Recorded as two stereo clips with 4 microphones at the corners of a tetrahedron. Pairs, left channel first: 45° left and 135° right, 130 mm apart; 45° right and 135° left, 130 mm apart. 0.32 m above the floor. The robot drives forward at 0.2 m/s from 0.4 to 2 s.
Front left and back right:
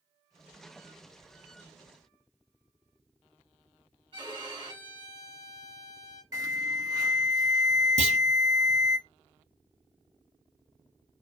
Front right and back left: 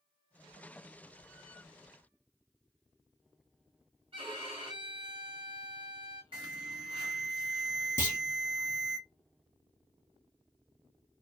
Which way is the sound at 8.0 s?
115° right.